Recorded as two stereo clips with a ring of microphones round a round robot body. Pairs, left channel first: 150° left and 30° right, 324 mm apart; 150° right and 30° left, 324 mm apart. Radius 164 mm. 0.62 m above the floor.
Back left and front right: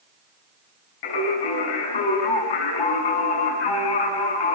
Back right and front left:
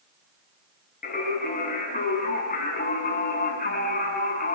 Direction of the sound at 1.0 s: 145° left.